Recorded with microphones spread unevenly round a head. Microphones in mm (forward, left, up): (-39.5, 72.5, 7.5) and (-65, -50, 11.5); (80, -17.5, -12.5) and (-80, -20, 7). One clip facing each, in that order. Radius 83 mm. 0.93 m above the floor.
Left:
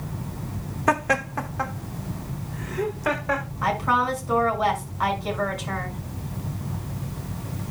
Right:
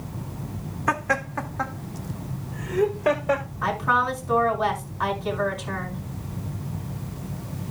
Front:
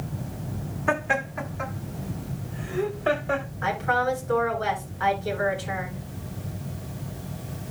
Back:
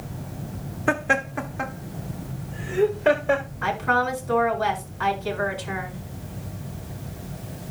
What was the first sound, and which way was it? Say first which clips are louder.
Laughter: left 3 dB, back 2 dB; 135° left.